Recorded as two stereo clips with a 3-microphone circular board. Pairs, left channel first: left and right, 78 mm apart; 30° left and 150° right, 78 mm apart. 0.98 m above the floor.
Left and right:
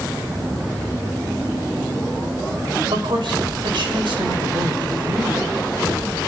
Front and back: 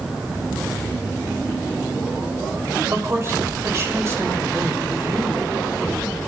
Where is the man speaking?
95° right, 5 m.